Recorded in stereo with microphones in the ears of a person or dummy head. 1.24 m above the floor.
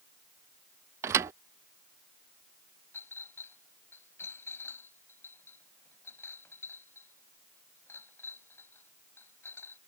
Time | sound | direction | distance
1.0 | a thud | 15° right (ahead or behind) | ?
2.9 | a clink | 10° left (ahead or behind) | ?